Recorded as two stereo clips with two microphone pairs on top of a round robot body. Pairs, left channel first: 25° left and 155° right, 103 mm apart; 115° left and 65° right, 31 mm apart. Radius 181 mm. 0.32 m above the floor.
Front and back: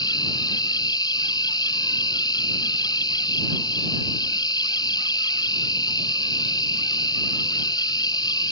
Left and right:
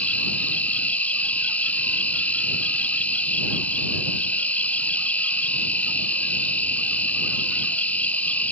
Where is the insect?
75° left.